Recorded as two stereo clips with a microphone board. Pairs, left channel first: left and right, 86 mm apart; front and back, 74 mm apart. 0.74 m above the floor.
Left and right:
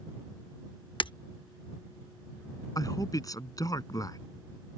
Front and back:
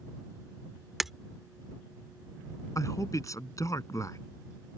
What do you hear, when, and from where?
1.0 s breaking glass: 95° left
2.8 s a man speaking: 45° left